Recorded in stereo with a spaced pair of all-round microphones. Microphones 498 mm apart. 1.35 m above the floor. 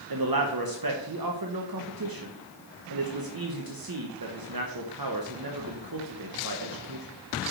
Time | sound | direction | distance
0.1 | a man speaking | 45° right (ahead or behind) | 0.9 m